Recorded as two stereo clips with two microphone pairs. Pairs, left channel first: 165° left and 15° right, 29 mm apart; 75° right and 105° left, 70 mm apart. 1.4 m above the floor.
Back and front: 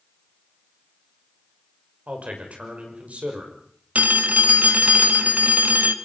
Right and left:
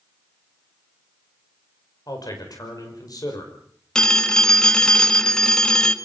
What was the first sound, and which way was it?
A man speaking, 50° right.